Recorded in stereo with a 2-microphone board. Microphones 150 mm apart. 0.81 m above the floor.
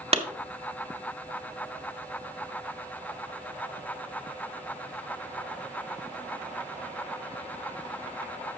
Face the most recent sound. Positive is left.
turn(degrees=-40)  # may be behind; listen again after turning